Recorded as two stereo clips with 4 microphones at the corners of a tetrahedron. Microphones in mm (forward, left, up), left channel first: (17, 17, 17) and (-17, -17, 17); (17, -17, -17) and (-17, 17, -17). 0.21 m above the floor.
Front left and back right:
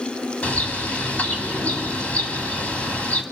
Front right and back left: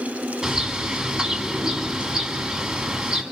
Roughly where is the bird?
Left.